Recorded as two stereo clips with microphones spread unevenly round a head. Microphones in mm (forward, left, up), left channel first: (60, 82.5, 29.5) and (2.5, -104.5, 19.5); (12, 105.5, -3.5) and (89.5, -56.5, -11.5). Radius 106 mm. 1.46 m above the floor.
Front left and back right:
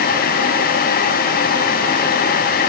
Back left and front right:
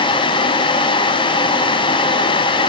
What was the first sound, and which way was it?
Only background noise.